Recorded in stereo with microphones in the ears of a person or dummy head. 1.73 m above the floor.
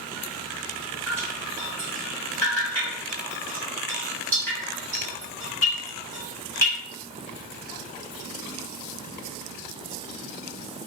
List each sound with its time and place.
1.1 s dripping: 10° left (ahead or behind), 0.7 m